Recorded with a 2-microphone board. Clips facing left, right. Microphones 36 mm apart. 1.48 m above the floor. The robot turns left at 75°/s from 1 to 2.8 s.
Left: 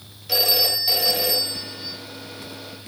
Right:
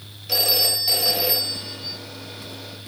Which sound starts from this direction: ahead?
A phone ringing, at 0.3 s.